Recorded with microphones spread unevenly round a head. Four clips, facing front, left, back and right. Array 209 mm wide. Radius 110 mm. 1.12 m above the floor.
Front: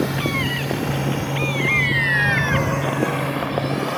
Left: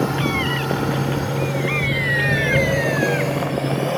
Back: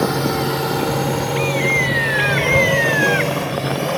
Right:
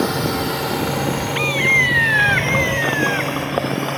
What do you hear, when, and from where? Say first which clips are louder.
0.0 s a drone: right 1 dB, back 4 dB; 170° right; by 4.0 s 145° left